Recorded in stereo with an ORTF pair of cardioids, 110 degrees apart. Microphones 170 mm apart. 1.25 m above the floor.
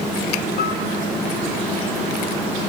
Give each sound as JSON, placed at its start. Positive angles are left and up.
{"t": 0.6, "sound": "a piano", "azimuth_deg": 70, "distance_m": 4.0}